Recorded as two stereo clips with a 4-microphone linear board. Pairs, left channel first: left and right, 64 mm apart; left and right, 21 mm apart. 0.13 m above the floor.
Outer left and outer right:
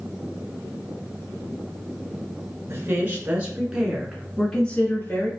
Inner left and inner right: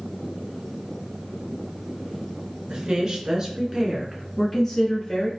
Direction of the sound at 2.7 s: 35° right (ahead or behind).